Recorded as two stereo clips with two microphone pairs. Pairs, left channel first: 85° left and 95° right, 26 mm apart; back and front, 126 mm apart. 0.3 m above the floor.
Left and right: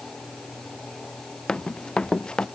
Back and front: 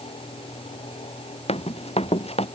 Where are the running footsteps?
150° left.